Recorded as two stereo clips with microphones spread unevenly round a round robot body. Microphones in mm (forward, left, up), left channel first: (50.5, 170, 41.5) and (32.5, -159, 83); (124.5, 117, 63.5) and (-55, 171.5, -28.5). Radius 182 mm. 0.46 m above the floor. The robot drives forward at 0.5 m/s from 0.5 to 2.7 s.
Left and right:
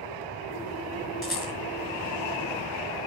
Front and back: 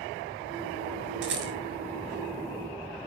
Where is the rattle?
175° left, 5.5 m.